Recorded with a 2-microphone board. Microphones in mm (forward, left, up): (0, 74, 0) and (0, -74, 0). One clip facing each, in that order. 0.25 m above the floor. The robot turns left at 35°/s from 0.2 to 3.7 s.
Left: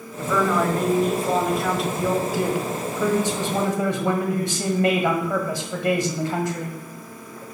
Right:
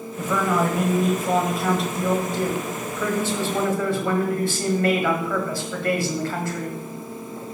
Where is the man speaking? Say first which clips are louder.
Left 1 dB; 15° right (ahead or behind), 1.5 m; by 6.8 s 20° left (ahead or behind), 1.5 m.